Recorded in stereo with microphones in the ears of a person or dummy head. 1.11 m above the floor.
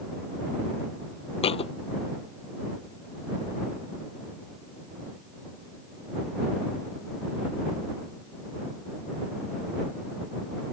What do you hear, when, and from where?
1.4 s a thud: 25° left (ahead or behind)